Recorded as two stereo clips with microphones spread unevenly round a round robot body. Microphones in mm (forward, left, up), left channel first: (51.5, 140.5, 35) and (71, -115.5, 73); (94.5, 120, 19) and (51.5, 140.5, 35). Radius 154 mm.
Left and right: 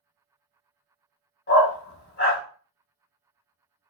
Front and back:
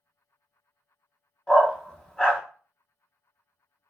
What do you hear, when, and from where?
1.5 s a dog barking: 45° left, 1.4 m